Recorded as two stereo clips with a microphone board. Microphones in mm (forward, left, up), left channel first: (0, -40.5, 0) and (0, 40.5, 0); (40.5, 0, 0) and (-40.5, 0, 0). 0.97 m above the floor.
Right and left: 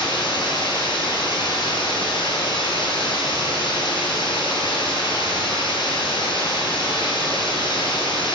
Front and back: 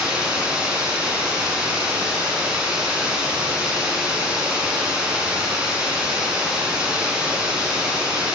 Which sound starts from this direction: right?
Running water, at 0.0 s.